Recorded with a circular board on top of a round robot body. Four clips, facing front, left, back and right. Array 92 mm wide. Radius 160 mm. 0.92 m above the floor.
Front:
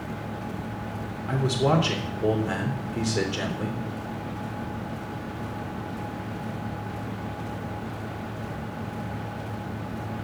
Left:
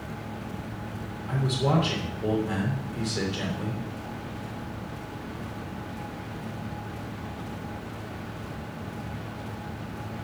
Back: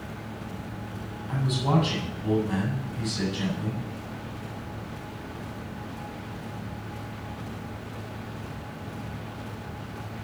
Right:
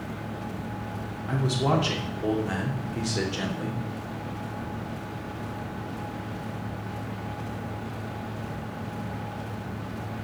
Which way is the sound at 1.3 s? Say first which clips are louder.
Right 1 dB, front 3 dB; 30° right.